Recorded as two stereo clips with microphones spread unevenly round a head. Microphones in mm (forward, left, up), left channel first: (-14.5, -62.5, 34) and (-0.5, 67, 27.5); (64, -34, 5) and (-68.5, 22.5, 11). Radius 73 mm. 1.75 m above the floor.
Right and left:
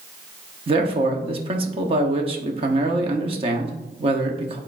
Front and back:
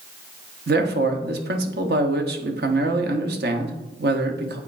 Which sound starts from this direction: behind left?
A man speaking, at 0.7 s.